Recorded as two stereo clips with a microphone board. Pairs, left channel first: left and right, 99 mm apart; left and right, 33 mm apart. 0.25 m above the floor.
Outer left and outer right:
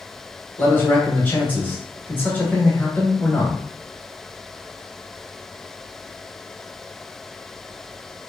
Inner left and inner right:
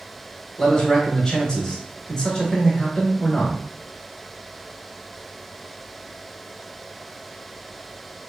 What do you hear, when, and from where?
0.6 s a man speaking: 20° left (ahead or behind), 0.9 m